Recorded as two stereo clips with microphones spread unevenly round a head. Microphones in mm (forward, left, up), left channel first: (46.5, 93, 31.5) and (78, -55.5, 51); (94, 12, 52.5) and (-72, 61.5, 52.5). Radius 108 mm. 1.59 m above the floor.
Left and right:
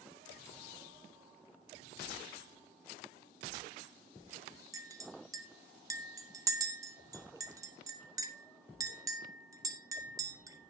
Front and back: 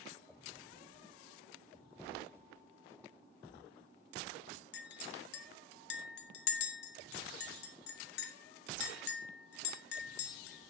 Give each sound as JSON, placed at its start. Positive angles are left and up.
{"t": 4.7, "sound": "a clink", "azimuth_deg": -25, "distance_m": 1.2}